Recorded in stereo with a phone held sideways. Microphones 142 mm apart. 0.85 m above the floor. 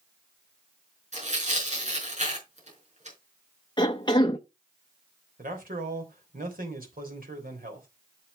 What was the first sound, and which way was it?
Tearing paper, 50° right (ahead or behind).